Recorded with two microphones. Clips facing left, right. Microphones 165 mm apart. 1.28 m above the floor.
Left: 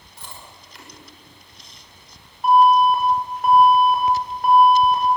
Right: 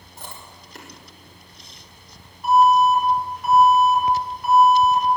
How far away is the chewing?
About 5 m.